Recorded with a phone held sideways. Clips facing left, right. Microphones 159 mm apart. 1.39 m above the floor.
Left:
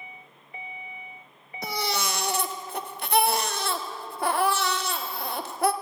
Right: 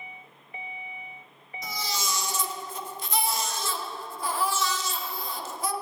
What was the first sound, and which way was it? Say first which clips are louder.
A baby crying: left 5 dB; 65° left (ahead or behind).